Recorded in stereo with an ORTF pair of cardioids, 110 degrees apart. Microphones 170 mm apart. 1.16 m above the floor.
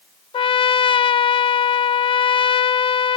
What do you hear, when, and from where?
0.3 s a trumpet: 30° left, 0.5 m